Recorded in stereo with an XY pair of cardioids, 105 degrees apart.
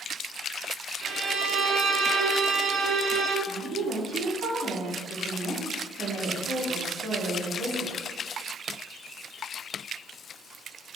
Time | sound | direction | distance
1.0 | a violin | 60° right | 2.0 m
3.5 | a woman speaking | 70° right | 2.5 m